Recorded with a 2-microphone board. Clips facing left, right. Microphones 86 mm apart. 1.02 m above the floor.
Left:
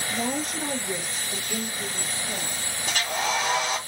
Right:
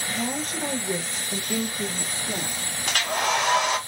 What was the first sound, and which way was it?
A woman speaking, 20° left (ahead or behind).